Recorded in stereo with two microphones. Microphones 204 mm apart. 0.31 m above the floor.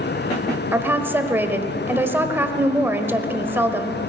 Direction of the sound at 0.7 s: 10° right (ahead or behind).